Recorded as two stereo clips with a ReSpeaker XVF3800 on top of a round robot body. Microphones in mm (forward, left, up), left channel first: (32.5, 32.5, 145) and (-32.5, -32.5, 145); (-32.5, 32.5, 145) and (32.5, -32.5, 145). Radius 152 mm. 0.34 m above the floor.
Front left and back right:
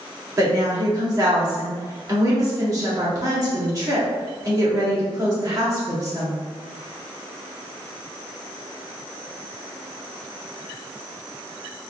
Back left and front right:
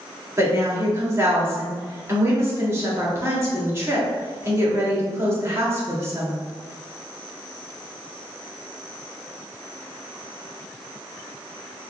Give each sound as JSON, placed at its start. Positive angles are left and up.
{"t": 0.4, "sound": "a woman speaking", "azimuth_deg": -95, "distance_m": 1.9}